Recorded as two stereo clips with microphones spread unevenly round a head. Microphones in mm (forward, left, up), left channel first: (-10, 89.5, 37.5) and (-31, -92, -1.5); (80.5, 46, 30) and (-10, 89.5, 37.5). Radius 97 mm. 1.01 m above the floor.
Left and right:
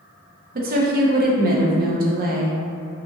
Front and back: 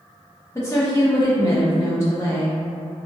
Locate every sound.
0.6 s a woman speaking: 85° right, 0.5 m